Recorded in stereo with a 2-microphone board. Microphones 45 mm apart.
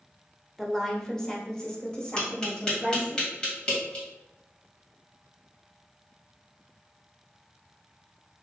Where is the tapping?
20° left (ahead or behind), 1.8 m.